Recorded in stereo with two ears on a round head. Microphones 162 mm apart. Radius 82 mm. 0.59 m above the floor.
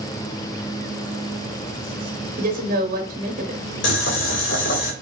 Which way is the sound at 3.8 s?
65° left (ahead or behind).